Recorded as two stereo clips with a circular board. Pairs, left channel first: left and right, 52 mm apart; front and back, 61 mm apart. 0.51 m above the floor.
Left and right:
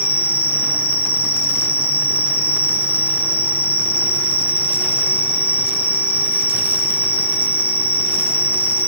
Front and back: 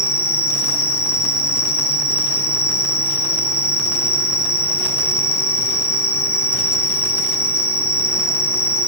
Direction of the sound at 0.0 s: 40° right.